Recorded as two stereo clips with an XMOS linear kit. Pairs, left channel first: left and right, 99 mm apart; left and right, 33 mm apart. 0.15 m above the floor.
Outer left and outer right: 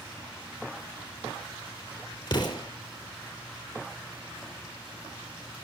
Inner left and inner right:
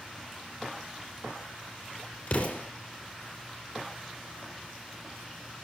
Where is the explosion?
50° left (ahead or behind), 4.5 m.